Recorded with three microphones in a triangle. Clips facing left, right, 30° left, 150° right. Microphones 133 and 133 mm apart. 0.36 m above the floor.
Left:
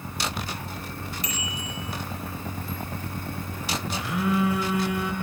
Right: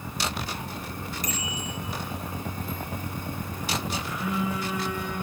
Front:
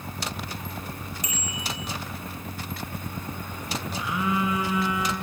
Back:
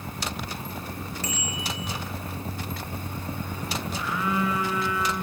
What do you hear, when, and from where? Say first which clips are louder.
1.2 s a bicycle bell: right 1 dB, back 3 dB; 45° right, 4.5 m
4.0 s a phone buzzing: left 5 dB, front 1 dB; 100° left, 3 m